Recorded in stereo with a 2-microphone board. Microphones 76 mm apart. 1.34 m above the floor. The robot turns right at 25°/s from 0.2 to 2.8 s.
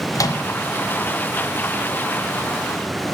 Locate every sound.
0.1 s a microwave: 45° left (ahead or behind), 0.5 m; by 0.4 s 50° left (ahead or behind), 0.5 m